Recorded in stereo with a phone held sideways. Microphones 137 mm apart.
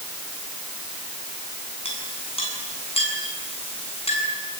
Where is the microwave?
No microwave in this recording.